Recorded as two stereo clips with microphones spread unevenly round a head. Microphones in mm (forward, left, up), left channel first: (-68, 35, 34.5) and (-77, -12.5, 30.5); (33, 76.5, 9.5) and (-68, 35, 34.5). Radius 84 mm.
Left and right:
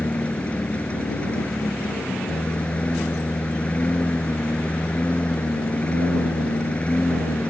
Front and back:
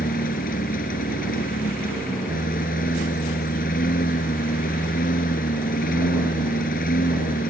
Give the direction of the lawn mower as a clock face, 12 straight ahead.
12 o'clock.